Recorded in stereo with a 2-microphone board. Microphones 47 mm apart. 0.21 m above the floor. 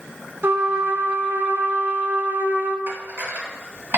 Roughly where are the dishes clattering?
Right.